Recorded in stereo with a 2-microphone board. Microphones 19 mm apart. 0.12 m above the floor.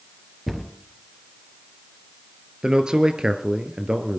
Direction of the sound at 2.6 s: 40° right (ahead or behind).